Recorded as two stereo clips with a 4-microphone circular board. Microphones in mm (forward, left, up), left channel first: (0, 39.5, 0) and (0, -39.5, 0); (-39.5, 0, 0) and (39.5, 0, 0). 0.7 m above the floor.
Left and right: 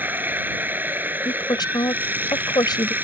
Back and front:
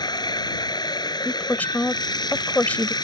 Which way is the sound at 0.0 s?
155° right.